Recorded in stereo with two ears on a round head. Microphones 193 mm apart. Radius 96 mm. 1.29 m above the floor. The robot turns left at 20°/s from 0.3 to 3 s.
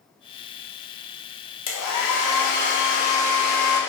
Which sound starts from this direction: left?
A hair dryer, at 1.7 s.